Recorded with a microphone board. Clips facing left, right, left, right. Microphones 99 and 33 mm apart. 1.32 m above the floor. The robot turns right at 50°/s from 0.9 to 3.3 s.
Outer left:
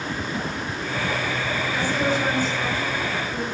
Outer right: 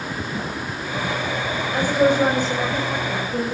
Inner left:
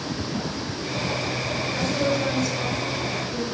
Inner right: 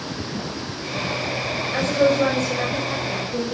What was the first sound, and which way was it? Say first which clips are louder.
A woman speaking: outer right 8 dB, inner right 7 dB; 50° right (ahead or behind).